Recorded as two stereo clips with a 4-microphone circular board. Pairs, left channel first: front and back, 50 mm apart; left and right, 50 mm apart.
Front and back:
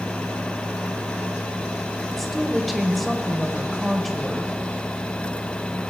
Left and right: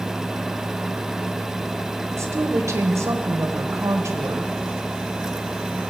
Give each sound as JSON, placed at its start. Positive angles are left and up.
{"t": 2.1, "sound": "a woman speaking", "azimuth_deg": -90, "distance_m": 1.2}